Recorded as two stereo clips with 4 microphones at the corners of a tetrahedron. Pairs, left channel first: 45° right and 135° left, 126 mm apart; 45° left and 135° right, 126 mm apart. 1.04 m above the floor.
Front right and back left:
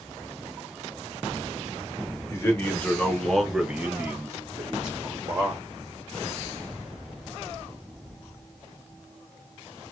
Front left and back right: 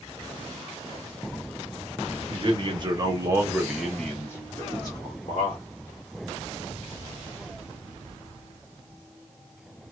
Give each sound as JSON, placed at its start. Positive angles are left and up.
{"t": 2.3, "sound": "a man speaking", "azimuth_deg": -105, "distance_m": 1.1}